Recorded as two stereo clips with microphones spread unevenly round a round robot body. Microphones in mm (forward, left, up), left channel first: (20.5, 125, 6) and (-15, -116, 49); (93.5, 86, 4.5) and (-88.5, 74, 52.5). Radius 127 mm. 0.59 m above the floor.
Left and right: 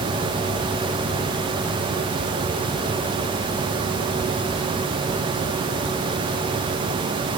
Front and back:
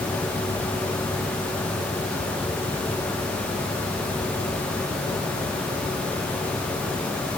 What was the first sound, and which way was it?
Only background noise.